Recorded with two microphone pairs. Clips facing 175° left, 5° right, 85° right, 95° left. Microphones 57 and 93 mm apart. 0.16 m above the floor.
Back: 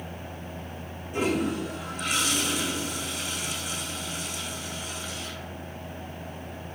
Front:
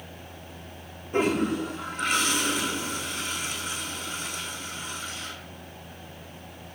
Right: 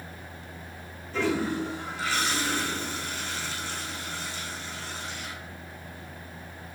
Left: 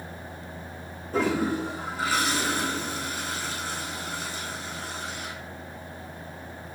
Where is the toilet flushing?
45° left, 2.5 m.